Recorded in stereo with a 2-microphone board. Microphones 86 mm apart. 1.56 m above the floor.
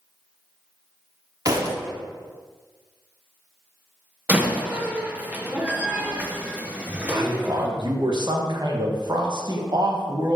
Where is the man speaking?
55° right (ahead or behind), 1.4 m.